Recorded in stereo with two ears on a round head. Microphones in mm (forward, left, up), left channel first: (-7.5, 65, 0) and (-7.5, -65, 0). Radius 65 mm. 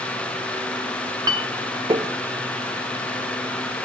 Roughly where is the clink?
Right.